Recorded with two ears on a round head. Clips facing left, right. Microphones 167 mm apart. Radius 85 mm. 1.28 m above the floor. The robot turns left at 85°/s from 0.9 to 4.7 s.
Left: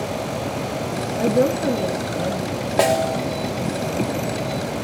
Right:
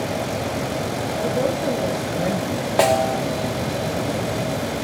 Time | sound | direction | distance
1.2 | a woman speaking | 70° left | 1.3 m
2.8 | a snare drum | straight behind | 1.3 m